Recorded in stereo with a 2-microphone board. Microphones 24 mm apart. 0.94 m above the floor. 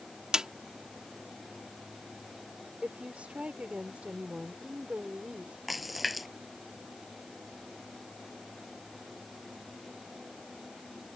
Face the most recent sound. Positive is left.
turn(degrees=-5)  # may be behind; listen again after turning